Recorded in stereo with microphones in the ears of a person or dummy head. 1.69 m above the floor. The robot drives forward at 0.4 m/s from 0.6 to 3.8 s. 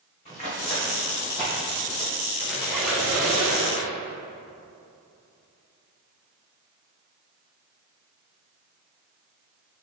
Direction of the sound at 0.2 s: 15° left (ahead or behind).